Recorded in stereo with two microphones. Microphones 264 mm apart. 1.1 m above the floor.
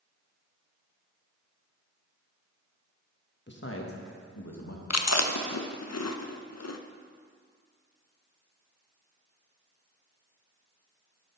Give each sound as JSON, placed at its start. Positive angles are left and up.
{"t": 3.5, "sound": "a man speaking", "side_deg": 45, "distance_m": 1.3}
{"t": 4.9, "sound": "chewing", "side_deg": 80, "distance_m": 0.5}